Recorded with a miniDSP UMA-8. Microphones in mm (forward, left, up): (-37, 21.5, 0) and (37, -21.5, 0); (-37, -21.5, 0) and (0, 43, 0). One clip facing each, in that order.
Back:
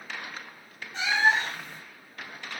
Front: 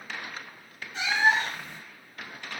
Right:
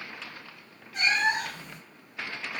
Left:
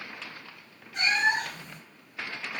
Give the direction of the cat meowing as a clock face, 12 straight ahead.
8 o'clock.